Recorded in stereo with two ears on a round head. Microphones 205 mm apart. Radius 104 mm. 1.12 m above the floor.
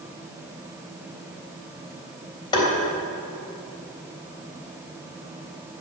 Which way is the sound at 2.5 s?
20° left (ahead or behind).